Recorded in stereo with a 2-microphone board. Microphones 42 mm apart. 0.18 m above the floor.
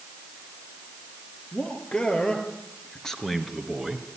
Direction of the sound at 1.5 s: 25° left (ahead or behind).